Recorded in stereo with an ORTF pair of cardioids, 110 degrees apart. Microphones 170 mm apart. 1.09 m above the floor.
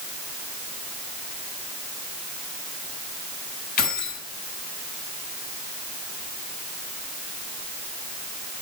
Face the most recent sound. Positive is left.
turn(degrees=60)